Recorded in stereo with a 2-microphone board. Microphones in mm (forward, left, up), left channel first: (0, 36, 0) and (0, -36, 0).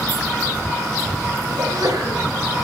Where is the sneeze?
75° right (ahead or behind), 6.5 m.